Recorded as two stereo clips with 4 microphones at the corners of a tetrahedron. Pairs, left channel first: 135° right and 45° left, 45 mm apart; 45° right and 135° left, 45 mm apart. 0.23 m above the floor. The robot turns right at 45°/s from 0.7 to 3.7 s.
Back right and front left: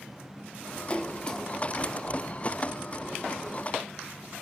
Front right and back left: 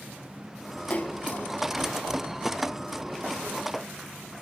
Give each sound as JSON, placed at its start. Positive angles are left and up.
{"t": 0.9, "sound": "a splash", "azimuth_deg": -85, "distance_m": 0.9}